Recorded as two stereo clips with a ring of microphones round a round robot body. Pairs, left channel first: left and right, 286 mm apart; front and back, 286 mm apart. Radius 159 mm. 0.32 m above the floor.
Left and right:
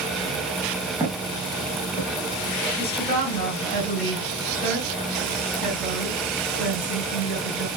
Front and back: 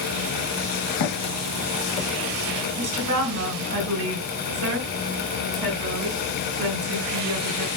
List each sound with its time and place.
1.0 s footsteps: 10° right, 1.6 m; by 2.1 s 10° left, 2.5 m
2.8 s a woman speaking: 160° left, 1.7 m